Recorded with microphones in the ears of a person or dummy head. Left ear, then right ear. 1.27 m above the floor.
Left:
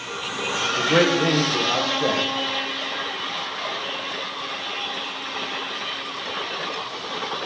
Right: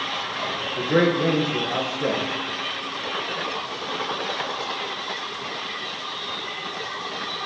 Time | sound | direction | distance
0.8 | a man speaking | 20° left (ahead or behind) | 1.2 m